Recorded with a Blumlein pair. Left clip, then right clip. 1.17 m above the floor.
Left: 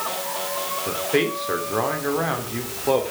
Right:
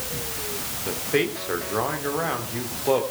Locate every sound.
0.9 s a man speaking: 5° left, 3 m